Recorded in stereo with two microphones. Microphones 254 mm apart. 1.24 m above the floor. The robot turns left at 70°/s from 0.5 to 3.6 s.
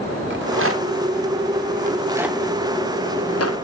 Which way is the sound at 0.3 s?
50° right (ahead or behind).